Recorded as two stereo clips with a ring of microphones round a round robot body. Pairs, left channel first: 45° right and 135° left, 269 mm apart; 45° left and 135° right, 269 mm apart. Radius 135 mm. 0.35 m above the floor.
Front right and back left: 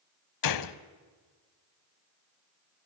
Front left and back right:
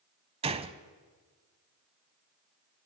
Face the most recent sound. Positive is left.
turn(degrees=-65)